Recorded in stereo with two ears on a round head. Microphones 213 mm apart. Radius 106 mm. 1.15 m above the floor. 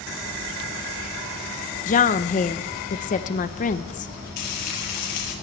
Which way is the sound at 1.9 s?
35° left (ahead or behind).